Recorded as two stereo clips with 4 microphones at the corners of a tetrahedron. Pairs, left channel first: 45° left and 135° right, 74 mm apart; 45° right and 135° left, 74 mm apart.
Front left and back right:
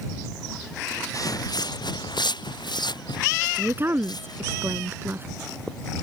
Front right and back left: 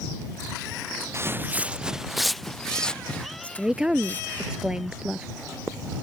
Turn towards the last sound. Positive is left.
turn(degrees=-155)